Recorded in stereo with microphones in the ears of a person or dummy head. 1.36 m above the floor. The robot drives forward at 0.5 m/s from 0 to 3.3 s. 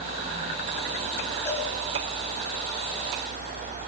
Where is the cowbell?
20° left (ahead or behind), 7.5 m.